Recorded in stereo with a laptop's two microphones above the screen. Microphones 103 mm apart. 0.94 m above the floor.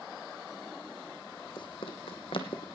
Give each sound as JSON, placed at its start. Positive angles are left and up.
{"t": 1.6, "sound": "running footsteps", "side_deg": 55, "distance_m": 2.0}